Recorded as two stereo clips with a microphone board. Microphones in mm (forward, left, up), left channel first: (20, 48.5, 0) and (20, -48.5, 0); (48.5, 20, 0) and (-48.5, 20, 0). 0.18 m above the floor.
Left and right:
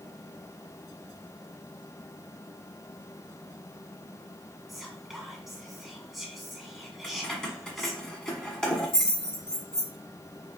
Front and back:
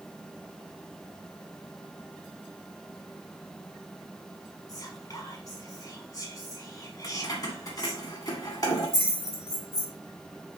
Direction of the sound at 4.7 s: Straight ahead.